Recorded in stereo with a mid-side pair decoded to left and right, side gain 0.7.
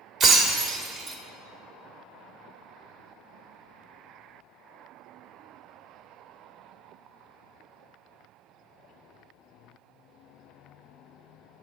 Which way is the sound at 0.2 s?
45° right.